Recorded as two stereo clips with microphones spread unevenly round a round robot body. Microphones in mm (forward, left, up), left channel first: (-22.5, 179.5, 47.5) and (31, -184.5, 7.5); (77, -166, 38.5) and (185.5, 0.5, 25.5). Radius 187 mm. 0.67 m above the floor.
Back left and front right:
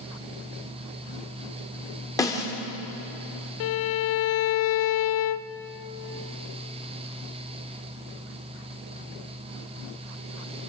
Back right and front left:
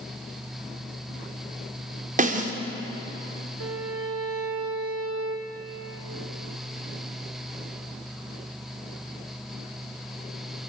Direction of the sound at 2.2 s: 15° left.